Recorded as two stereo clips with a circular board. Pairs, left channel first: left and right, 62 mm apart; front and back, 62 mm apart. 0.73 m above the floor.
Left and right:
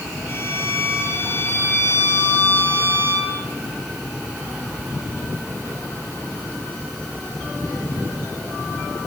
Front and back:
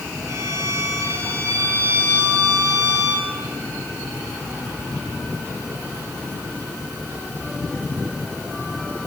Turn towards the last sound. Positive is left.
turn(degrees=140)